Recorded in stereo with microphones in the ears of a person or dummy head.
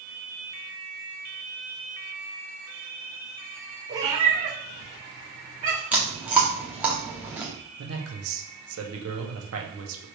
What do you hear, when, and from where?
3.9 s a cat meowing: 20° right (ahead or behind), 1.3 m; by 5.8 s 40° right (ahead or behind), 1.7 m
5.9 s chewing: 5° right (ahead or behind), 1.0 m
7.8 s a man speaking: 80° right, 1.1 m